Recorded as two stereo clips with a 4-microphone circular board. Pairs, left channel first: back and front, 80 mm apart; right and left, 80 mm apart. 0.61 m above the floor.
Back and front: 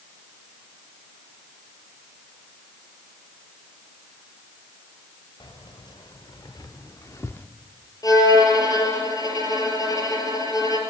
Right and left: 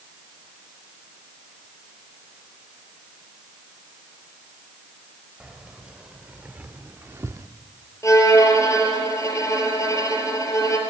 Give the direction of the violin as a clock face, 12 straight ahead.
5 o'clock.